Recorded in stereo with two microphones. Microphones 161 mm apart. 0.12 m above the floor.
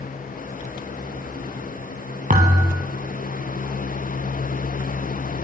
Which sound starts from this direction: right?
A thud, at 2.3 s.